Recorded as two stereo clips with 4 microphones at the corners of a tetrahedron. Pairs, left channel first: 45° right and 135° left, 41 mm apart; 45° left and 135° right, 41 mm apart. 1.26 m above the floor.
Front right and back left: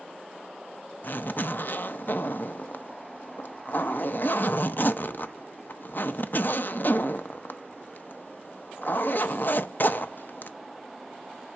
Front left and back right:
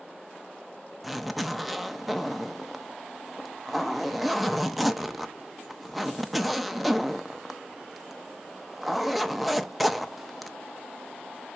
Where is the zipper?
45° right, 0.6 m.